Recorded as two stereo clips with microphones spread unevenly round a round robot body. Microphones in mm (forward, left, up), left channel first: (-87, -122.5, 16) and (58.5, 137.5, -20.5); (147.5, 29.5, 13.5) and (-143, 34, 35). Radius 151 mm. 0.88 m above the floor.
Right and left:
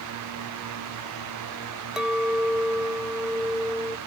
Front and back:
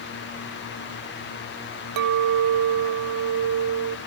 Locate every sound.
2.0 s a clink: 150° left